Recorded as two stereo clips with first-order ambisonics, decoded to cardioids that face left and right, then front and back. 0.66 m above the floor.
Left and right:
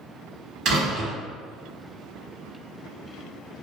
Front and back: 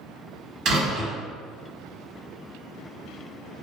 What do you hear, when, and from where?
0.7 s a door slam: 135° right, 1.0 m